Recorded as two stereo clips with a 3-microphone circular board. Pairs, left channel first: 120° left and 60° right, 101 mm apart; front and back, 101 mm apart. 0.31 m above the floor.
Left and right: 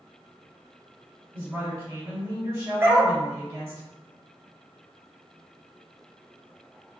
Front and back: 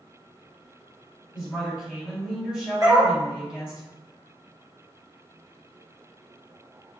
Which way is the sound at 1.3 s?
105° right.